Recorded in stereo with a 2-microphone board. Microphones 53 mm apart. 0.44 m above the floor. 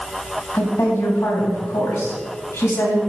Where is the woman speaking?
65° left (ahead or behind), 3.5 m.